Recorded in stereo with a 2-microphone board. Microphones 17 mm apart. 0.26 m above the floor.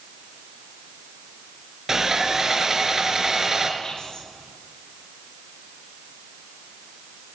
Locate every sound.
1.9 s sawing: 30° right (ahead or behind), 3.5 m
3.8 s whispering: 45° left (ahead or behind), 6.5 m